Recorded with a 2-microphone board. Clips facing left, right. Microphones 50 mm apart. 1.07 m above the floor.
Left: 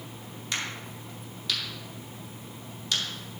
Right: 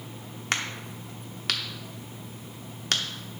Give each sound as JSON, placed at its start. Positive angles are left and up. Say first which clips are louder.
{"t": 0.5, "sound": "a crack", "louder": "right 3 dB", "side_deg": -60, "distance_m": 1.0}